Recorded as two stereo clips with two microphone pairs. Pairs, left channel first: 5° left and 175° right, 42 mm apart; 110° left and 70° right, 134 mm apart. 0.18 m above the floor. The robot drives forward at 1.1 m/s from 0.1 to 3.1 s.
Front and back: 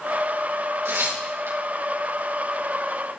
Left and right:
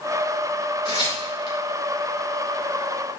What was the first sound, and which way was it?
Tearing paper, 170° left.